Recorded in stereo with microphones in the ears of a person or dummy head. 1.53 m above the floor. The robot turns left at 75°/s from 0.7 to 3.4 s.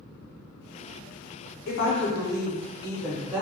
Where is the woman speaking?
115° left, 0.7 m; by 3.4 s 15° right, 0.7 m.